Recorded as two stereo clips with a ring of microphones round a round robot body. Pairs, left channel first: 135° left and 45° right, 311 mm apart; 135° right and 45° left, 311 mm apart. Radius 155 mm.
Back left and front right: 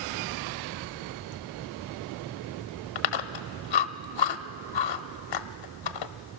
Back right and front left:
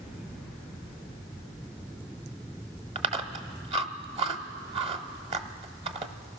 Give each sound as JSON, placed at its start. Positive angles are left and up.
{"t": 3.0, "sound": "chewing", "azimuth_deg": 115, "distance_m": 0.8}